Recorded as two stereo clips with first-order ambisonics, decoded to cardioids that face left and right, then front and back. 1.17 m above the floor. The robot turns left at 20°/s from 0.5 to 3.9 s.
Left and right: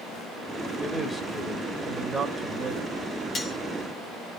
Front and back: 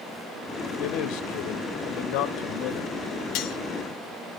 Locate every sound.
0.8 s a man speaking: 15° left, 1.7 m; by 3.0 s 30° right, 1.7 m
3.4 s cutlery clinking: 25° left, 1.3 m; by 3.6 s 20° left, 1.3 m